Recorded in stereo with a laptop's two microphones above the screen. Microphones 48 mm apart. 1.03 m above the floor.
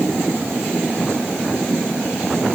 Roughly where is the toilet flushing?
No toilet flushing in this recording.